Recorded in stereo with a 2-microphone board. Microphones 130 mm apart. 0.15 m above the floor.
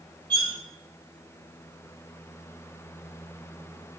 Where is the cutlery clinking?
40° right (ahead or behind), 0.9 m.